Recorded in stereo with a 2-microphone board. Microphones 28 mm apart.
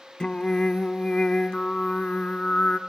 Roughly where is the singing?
Left.